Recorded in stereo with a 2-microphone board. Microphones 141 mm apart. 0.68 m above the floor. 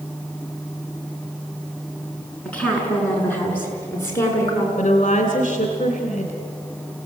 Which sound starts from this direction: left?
A woman speaking, at 4.8 s.